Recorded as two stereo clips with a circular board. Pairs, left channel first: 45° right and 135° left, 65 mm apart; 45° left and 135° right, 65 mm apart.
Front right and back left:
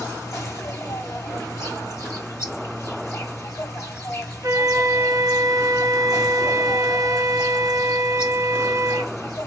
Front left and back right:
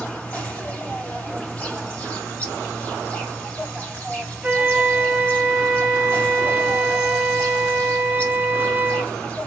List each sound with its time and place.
0.0 s an insect: 20° right, 2.5 m
4.4 s a flute: 150° left, 0.8 m